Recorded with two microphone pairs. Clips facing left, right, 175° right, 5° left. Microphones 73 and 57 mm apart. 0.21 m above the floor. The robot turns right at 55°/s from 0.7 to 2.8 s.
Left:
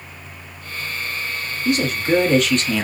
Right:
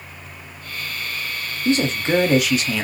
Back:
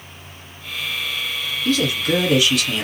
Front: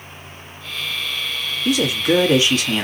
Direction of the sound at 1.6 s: 65° right.